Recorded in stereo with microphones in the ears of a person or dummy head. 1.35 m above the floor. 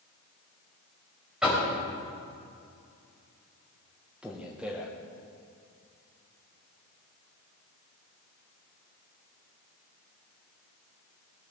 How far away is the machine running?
I don't hear a machine running.